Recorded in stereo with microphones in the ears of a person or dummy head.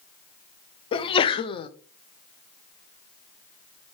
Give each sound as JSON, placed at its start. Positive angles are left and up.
{"t": 0.9, "sound": "a sneeze", "side_deg": 30, "distance_m": 0.7}